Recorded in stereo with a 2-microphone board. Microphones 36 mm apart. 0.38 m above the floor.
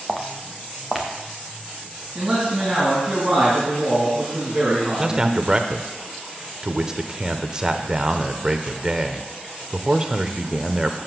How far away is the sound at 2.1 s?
About 3.5 m.